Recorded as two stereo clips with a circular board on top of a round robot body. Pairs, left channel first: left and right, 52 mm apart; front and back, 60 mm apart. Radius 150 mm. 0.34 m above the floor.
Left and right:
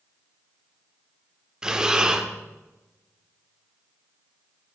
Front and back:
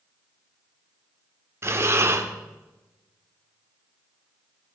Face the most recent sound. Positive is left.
turn(degrees=-160)